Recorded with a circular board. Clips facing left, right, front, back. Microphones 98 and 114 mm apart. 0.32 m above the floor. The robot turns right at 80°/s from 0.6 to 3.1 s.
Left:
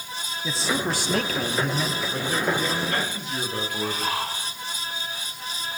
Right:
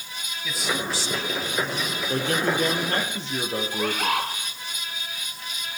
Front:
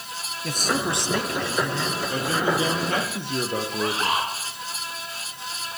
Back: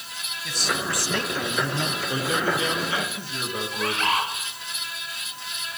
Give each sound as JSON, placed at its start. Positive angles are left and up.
{"t": 0.4, "sound": "a man speaking", "azimuth_deg": 35, "distance_m": 2.0}
{"t": 2.1, "sound": "a man speaking", "azimuth_deg": -110, "distance_m": 8.0}
{"t": 3.7, "sound": "a bird", "azimuth_deg": -70, "distance_m": 3.5}